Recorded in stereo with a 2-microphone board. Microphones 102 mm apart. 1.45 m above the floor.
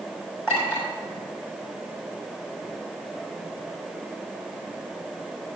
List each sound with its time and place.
0.5 s a clink: 20° right (ahead or behind), 5.5 m